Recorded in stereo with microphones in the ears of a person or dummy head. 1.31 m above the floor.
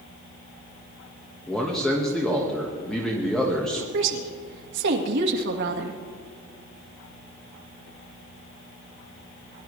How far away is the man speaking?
About 1.4 m.